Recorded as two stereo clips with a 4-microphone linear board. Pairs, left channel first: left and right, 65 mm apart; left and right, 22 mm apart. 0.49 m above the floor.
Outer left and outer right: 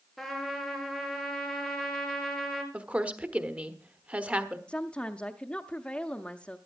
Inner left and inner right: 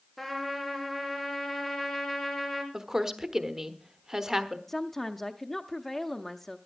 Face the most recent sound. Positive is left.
turn(degrees=15)  # may be behind; listen again after turning